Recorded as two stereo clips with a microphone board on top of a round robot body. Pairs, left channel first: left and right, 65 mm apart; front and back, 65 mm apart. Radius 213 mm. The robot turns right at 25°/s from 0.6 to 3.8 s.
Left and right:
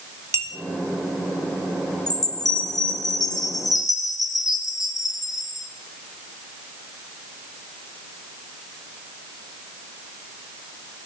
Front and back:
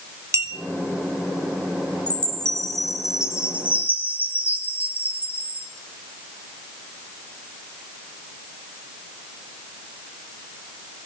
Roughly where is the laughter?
I don't hear laughter.